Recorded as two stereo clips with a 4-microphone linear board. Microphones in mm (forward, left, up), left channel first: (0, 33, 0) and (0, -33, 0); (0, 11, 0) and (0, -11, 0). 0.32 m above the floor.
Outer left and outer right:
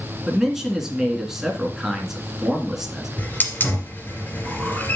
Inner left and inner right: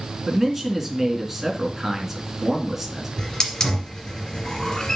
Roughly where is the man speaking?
Centre.